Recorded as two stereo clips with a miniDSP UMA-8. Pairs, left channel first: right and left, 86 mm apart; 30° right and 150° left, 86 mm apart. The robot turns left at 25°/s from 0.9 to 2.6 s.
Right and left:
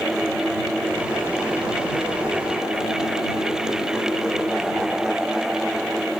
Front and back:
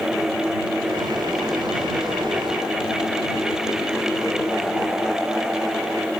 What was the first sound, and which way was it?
Only background noise.